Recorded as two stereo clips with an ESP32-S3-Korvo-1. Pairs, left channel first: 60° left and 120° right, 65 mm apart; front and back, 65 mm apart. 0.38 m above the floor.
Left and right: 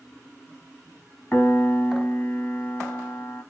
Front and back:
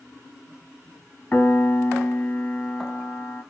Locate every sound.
1.3 s a piano: 30° left, 1.2 m